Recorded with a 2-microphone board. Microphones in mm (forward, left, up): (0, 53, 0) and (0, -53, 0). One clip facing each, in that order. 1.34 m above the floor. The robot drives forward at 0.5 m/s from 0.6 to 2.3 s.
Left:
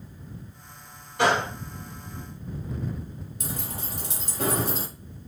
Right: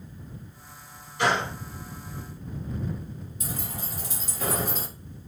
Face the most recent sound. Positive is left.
turn(degrees=70)  # may be behind; listen again after turning